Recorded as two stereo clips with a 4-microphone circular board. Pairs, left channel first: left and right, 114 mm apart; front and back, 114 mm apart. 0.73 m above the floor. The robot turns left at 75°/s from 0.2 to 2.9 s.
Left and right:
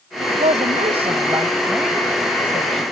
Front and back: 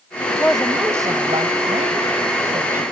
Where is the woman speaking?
60° right; by 2.8 s 105° left.